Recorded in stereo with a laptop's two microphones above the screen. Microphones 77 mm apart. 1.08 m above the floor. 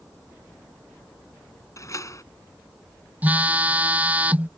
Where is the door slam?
45° left (ahead or behind).